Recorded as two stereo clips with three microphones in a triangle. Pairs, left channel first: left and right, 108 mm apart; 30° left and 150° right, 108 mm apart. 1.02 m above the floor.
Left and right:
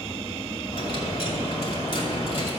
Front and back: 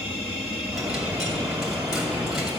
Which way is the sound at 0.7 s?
125° left.